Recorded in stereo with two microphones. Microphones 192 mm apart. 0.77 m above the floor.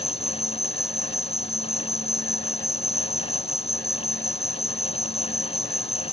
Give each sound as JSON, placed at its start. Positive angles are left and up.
{"t": 0.0, "sound": "an insect", "side_deg": 0}